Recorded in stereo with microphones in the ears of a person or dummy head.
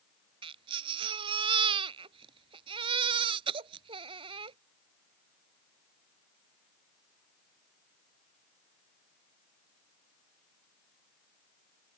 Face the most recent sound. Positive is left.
turn(degrees=-25)  # may be behind; listen again after turning